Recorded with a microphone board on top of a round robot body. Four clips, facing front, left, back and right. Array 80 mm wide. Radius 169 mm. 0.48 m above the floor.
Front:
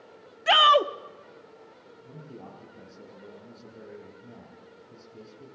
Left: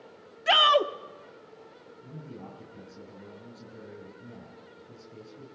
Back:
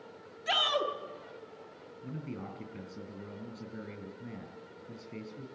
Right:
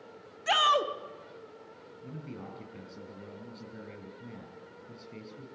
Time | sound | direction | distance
0.5 | a shout | 20° left | 1.2 m
2.0 | a man speaking | 160° right | 6 m